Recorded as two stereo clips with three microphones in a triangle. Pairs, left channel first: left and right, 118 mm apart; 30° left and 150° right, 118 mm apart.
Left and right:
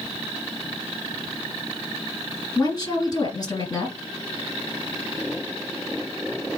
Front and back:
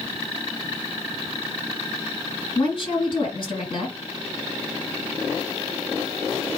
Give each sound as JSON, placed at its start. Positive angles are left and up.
{"t": 2.5, "sound": "a woman speaking", "azimuth_deg": 50, "distance_m": 2.5}